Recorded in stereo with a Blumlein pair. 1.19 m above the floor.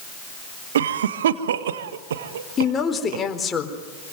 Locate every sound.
0.8 s a cough: 60° right, 1.5 m
2.6 s a woman speaking: 15° left, 4 m